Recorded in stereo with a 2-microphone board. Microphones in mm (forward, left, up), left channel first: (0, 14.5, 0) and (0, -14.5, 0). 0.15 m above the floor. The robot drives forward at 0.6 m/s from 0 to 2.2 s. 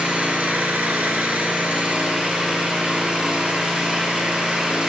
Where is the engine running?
45° right (ahead or behind), 0.9 m; by 4.9 s 40° right (ahead or behind), 1.1 m.